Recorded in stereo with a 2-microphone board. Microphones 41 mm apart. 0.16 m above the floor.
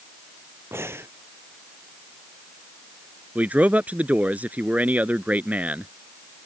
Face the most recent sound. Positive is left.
turn(degrees=-40)  # may be behind; listen again after turning